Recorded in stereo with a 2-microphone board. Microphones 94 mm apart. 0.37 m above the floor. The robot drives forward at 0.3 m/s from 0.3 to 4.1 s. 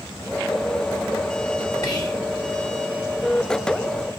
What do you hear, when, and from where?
1.8 s whispering: 45° left (ahead or behind), 3 m